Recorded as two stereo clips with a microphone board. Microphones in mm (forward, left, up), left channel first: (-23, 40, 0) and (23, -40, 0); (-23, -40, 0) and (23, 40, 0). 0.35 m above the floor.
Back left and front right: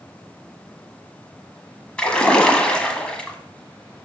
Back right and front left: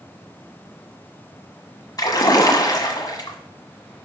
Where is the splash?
160° right, 1.3 m.